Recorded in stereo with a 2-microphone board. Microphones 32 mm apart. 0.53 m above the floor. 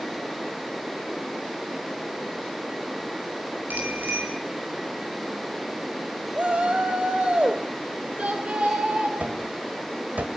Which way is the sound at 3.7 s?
70° right (ahead or behind).